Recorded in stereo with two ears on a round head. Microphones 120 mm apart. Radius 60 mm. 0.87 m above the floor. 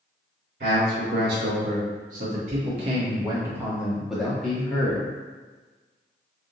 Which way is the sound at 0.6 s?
80° right.